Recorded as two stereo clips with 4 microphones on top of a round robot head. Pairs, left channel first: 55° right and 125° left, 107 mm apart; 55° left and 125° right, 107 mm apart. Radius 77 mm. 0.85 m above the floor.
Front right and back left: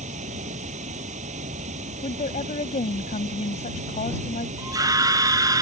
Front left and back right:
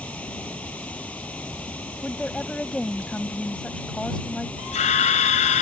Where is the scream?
70° left.